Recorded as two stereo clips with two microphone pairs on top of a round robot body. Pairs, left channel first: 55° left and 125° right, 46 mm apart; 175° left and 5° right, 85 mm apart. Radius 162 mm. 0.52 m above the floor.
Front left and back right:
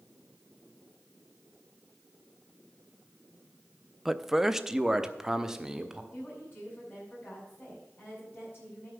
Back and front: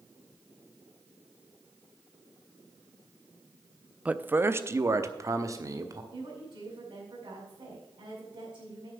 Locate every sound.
4.0 s a man speaking: 75° right, 0.7 m; by 6.0 s 50° right, 1.7 m
6.1 s a woman speaking: 10° left, 5 m